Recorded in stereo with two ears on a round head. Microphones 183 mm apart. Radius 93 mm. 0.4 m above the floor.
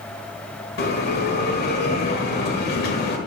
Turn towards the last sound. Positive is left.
turn(degrees=45)  # may be behind; listen again after turning